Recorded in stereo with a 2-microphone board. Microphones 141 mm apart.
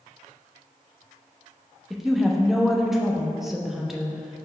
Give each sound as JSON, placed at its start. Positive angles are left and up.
{"t": 1.9, "sound": "a woman speaking", "side_deg": 0, "distance_m": 0.8}